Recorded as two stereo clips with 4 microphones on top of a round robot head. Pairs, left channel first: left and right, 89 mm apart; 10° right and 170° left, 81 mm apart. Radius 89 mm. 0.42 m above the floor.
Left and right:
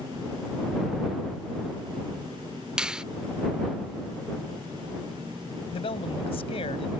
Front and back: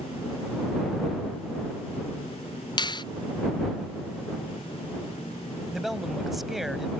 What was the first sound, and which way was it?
A finger snap, 10° right.